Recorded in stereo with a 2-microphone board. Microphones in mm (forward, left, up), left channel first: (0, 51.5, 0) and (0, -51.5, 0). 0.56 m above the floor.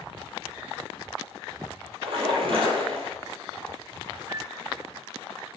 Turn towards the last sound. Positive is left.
turn(degrees=-45)  # may be behind; listen again after turning